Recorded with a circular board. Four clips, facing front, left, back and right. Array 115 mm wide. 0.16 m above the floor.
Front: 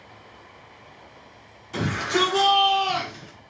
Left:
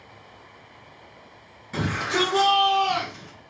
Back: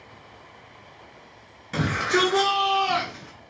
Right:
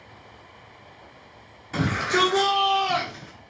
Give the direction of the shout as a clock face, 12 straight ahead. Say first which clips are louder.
Right 2 dB, back 1 dB; 6 o'clock.